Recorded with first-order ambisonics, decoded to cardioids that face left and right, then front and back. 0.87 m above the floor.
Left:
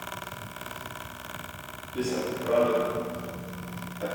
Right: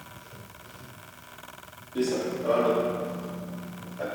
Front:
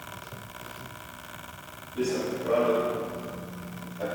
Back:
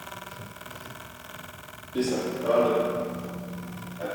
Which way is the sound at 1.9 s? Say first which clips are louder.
Right 2 dB, back 1 dB; 170° right.